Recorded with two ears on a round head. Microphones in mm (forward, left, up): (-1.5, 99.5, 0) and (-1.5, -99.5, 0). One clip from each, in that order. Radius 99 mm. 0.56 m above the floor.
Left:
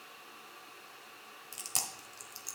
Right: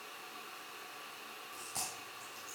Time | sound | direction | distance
1.5 | chewing | 75° left (ahead or behind) | 1.2 m